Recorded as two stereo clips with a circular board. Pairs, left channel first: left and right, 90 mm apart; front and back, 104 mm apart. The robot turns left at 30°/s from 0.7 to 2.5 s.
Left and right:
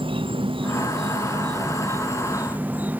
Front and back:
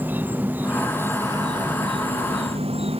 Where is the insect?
110° right; by 3.0 s 160° right.